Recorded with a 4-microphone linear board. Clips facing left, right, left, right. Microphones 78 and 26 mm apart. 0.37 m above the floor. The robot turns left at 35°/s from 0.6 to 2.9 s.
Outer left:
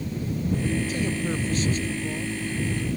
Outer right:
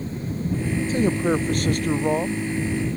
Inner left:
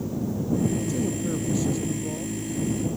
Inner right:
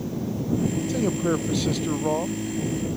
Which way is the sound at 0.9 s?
35° right.